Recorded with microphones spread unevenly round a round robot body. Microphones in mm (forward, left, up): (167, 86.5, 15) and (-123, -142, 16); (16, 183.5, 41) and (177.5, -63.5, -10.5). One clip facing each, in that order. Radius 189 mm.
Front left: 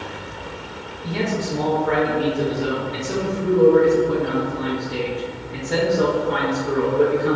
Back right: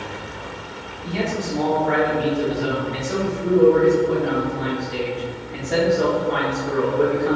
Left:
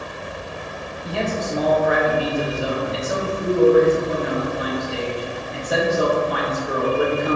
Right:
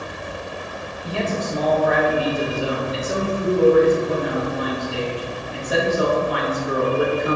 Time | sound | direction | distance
1.0 | a man speaking | straight ahead | 0.8 m